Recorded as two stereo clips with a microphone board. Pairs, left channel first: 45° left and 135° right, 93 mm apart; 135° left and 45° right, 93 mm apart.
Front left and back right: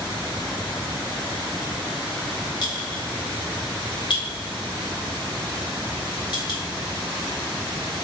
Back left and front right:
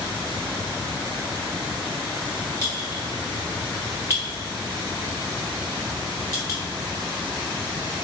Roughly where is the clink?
Left.